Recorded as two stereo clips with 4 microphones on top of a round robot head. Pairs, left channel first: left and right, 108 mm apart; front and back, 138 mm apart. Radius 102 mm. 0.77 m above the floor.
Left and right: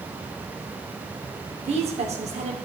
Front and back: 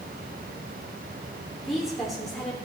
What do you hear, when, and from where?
1.6 s a woman speaking: 90° right, 2 m